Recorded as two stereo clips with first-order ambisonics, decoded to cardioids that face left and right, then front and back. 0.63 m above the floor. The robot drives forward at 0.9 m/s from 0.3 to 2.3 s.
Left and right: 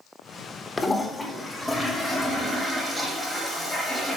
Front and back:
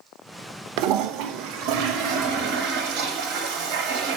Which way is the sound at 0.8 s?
165° left.